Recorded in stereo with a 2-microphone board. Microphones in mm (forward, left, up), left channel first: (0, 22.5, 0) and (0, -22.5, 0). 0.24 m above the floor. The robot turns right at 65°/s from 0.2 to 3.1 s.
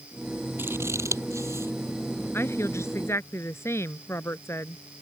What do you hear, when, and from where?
0.6 s scissors: 50° right (ahead or behind); by 1.7 s 55° right (ahead or behind)
2.3 s a woman speaking: 60° left; by 4.8 s 110° left